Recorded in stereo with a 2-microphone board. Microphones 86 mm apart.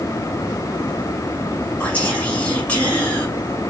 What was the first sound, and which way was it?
Whispering, 15° left (ahead or behind).